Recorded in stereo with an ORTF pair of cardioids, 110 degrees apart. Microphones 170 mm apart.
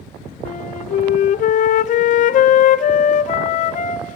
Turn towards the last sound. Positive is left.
turn(degrees=50)